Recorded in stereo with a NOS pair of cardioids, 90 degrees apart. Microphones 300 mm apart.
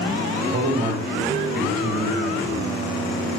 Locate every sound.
0.5 s a man speaking: 35° right, 1.9 m